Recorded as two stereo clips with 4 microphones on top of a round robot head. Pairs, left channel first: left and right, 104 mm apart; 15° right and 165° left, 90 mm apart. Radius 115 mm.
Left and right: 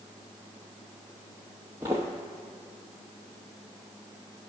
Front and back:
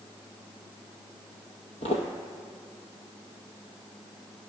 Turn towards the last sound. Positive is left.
turn(degrees=-15)